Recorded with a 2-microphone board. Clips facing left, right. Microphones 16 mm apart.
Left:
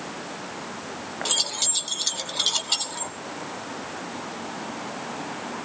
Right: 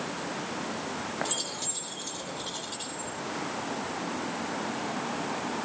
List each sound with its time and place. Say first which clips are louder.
1.2 s keys jangling: left 8 dB; 35° left (ahead or behind), 2 m; by 3.1 s 80° left, 2 m